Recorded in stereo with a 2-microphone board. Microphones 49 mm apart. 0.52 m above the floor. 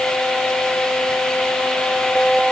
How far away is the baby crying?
No baby crying in this recording.